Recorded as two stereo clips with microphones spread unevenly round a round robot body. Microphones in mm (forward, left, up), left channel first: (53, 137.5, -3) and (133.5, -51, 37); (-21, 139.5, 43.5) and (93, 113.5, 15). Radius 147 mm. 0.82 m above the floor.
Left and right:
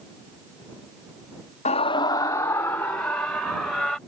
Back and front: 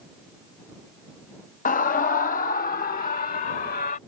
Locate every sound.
1.6 s a scream: 170° left; by 4.0 s 155° right